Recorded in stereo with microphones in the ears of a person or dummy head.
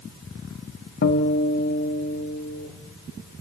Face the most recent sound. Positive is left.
turn(degrees=50)  # may be behind; listen again after turning